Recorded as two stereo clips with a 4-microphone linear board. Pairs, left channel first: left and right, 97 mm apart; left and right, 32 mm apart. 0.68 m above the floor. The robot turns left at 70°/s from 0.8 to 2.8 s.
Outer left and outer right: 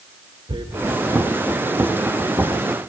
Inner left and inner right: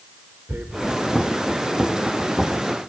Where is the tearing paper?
55° right (ahead or behind), 0.8 m; by 0.9 s 50° right (ahead or behind), 0.8 m.